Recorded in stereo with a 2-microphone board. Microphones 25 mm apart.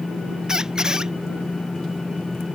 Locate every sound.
0.5 s a squeak: 25° right (ahead or behind)